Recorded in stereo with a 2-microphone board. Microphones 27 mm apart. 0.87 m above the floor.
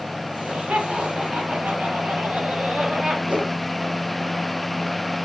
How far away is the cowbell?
I don't hear a cowbell.